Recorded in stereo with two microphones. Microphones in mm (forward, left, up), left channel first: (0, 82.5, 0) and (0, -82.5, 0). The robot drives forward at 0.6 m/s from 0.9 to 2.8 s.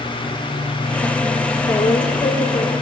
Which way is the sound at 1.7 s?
40° left (ahead or behind).